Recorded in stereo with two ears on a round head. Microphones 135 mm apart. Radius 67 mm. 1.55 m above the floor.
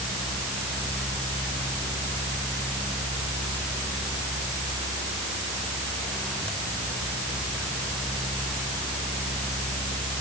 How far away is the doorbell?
No doorbell in this recording.